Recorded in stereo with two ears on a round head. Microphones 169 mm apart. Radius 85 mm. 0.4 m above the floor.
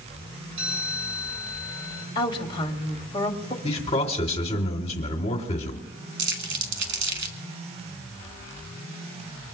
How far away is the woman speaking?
About 1.5 m.